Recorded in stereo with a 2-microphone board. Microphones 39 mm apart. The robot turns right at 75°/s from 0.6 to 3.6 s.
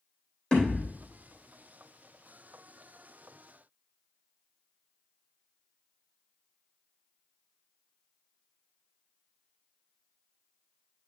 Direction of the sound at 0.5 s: 25° left (ahead or behind).